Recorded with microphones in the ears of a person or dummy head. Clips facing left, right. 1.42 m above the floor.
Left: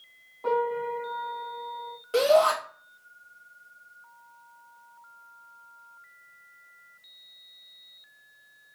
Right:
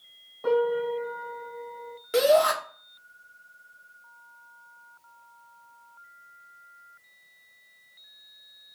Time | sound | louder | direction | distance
0.4 | a piano | right 3 dB | 25° right (ahead or behind) | 2.5 m
2.1 | a shout | even | 20° right (ahead or behind) | 1.3 m